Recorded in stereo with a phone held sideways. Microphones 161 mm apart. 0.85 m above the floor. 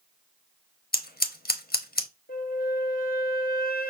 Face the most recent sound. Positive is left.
turn(degrees=60)  # may be behind; listen again after turning